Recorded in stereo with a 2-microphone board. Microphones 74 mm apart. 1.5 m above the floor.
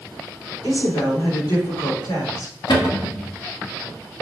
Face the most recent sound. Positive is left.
turn(degrees=70)  # may be behind; listen again after turning